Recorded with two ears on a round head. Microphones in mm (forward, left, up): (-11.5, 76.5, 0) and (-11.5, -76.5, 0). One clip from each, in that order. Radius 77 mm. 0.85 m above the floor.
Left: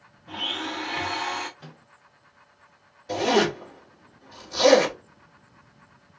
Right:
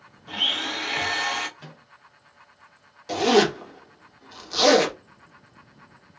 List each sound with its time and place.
0.3 s a blender: 75° right (ahead or behind), 1.0 m
1.6 s a microwave: 40° right (ahead or behind), 1.1 m
3.1 s a zipper: 55° right (ahead or behind), 1.5 m